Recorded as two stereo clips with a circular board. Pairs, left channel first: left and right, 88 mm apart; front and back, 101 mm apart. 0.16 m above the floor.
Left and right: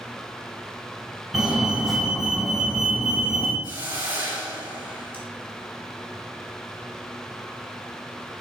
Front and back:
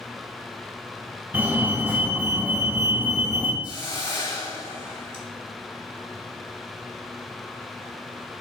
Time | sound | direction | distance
1.3 | a fire alarm | 170° right | 2.0 m
3.6 | a hiss | 25° right | 3.5 m